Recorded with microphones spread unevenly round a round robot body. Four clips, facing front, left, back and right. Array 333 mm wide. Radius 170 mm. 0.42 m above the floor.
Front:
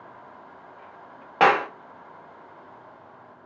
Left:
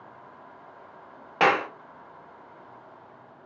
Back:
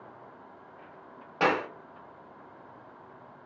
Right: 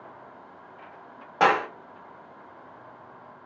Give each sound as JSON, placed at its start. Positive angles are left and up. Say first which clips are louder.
{"t": 1.4, "sound": "a clap", "louder": "right 1 dB, front 8 dB", "azimuth_deg": 5, "distance_m": 0.7}